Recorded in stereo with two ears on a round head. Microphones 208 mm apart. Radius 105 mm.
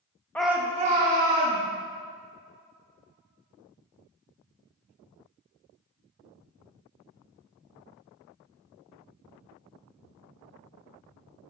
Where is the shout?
5° left (ahead or behind), 0.6 m; by 1.6 s 55° right (ahead or behind), 1.4 m.